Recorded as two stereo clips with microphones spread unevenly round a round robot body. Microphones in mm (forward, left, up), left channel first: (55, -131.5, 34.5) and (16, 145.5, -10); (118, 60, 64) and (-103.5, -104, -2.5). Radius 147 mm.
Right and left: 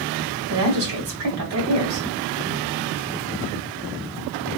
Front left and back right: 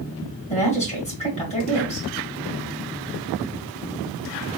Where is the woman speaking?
105° left, 2 m.